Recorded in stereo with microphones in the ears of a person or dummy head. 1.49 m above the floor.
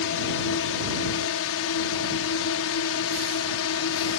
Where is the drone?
65° left (ahead or behind); by 4.2 s 70° left (ahead or behind).